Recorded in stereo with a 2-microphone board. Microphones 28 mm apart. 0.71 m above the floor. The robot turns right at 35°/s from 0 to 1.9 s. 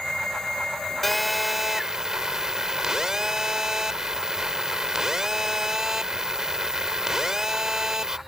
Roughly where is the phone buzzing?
Behind.